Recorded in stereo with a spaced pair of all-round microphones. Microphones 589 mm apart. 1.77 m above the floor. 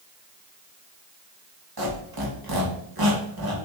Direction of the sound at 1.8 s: 35° right (ahead or behind).